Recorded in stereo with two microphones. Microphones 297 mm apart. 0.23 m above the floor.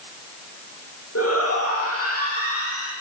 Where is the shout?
50° left (ahead or behind), 10 m.